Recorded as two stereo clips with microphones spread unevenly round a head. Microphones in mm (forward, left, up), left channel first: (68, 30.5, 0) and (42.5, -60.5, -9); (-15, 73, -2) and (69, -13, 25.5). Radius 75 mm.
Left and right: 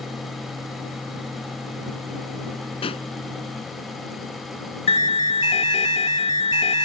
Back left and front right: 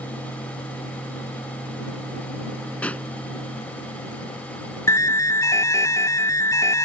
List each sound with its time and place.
2.8 s a pop: 55° left
4.9 s an alarm: 70° left